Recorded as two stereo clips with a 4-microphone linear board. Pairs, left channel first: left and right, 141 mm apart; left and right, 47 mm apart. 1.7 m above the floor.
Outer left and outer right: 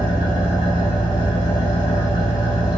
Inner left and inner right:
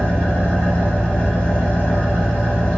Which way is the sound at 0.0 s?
30° left (ahead or behind).